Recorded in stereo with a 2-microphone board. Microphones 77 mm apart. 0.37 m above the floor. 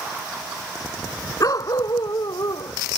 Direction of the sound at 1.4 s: 55° left (ahead or behind).